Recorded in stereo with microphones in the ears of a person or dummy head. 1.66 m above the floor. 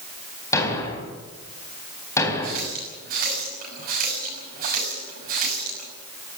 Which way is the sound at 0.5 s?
15° left (ahead or behind).